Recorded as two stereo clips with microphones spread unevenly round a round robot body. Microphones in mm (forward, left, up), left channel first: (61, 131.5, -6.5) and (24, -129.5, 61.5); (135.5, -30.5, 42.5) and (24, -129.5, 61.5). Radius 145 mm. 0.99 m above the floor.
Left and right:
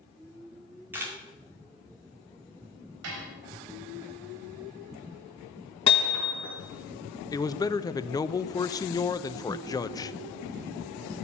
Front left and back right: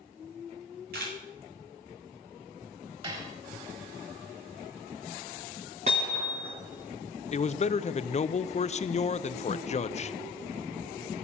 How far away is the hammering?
About 4 m.